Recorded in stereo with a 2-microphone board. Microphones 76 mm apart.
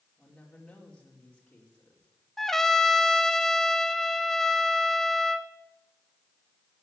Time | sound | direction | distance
0.2 | a woman speaking | 10° left (ahead or behind) | 4.5 m
2.4 | a trumpet | 5° left (ahead or behind) | 0.9 m